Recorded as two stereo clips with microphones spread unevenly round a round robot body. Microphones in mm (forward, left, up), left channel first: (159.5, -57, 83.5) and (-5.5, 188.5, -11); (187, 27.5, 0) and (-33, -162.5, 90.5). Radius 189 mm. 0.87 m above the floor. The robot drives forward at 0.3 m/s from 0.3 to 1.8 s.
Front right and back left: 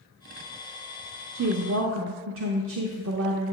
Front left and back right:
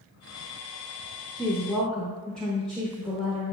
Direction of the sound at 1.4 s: 105° left.